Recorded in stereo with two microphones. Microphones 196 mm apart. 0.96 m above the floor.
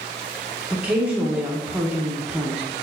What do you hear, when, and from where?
0.7 s a woman speaking: 5° right (ahead or behind), 0.9 m